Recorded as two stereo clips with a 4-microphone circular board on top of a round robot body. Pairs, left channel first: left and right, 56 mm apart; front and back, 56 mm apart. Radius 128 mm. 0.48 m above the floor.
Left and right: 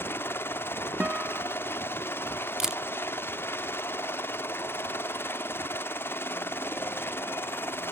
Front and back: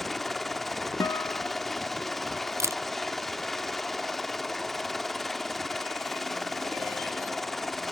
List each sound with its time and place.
0.0 s a helicopter: 90° left
1.0 s a guitar: 20° right
2.6 s a camera shutter: 170° right